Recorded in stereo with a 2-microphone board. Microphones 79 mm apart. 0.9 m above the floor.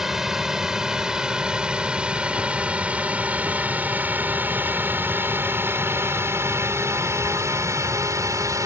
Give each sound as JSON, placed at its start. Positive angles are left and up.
{"t": 0.0, "sound": "a drone", "side_deg": -5}